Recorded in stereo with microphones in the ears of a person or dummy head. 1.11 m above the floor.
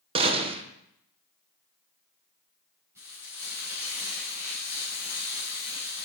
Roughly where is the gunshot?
Right.